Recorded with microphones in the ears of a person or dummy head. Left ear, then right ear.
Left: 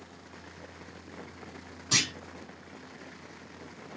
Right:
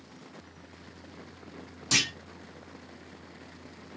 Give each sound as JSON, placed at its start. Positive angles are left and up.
{"t": 1.9, "sound": "a clunk", "side_deg": -75, "distance_m": 2.0}